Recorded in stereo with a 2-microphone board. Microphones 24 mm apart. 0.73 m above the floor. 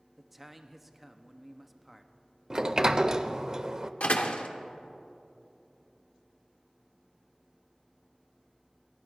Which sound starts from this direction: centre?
A man speaking, at 0.2 s.